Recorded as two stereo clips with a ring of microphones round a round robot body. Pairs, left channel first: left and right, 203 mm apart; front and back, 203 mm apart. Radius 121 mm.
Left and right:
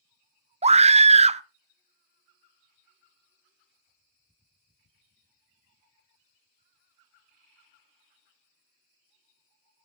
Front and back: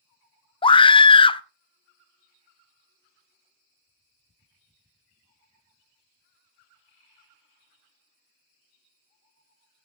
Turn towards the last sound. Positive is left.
turn(degrees=-50)